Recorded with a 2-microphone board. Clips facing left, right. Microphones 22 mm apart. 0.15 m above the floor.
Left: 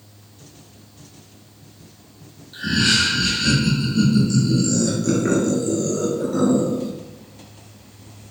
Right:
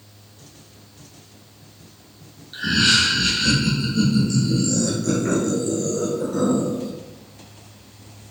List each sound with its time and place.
2.5 s laughter: 30° right (ahead or behind), 1.3 m; by 6.9 s 25° left (ahead or behind), 2.5 m